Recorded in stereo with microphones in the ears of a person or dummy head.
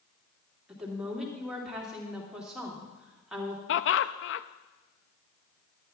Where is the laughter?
60° left (ahead or behind), 0.5 m.